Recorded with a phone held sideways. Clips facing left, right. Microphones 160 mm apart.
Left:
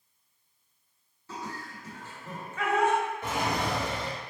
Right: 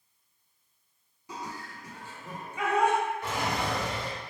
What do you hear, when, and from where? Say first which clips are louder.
1.3 s laughter: left 1 dB; 15° right (ahead or behind), 1.0 m
3.2 s a drawer: left 1 dB; 20° left (ahead or behind), 1.2 m